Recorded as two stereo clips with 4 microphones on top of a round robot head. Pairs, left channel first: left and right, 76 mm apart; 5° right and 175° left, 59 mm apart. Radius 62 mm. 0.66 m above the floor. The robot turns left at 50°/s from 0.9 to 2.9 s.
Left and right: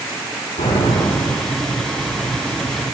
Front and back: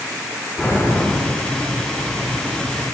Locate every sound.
0.6 s an explosion: 65° left, 6.5 m; by 1.7 s 25° left, 6.5 m